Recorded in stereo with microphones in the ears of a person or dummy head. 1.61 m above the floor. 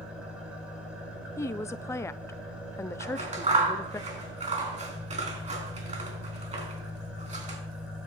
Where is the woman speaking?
15° left (ahead or behind), 0.5 m.